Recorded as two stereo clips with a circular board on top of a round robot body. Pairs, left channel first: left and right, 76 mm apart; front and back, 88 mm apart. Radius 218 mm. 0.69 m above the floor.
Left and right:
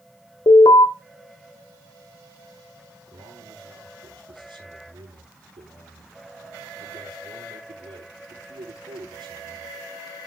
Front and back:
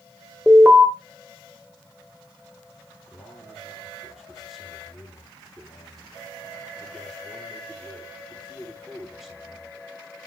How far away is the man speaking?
About 9 m.